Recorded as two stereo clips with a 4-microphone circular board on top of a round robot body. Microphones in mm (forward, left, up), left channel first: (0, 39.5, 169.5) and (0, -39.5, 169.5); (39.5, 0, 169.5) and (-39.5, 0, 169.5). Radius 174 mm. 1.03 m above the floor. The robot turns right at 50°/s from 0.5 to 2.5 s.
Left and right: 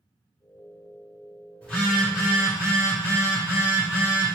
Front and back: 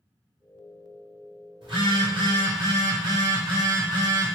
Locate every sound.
1.6 s a phone buzzing: 165° left, 1.7 m; by 4.3 s 150° right, 1.7 m